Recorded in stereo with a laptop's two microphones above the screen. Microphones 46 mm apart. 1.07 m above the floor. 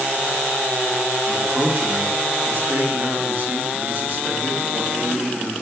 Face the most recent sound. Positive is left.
turn(degrees=-45)  # may be behind; listen again after turning